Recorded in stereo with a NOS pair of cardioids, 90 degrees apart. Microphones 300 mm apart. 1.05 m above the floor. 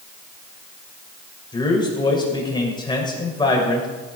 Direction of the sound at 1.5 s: 15° left.